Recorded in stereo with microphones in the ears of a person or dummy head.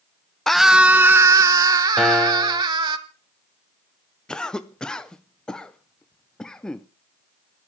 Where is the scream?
5° left (ahead or behind), 0.6 m; by 3.0 s 25° right (ahead or behind), 2 m.